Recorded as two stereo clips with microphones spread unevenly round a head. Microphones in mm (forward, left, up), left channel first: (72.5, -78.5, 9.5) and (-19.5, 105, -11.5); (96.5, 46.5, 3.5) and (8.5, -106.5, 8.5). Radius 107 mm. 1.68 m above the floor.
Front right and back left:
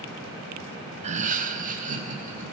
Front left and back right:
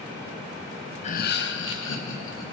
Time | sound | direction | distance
1.0 | laughter | 75° left | 0.6 m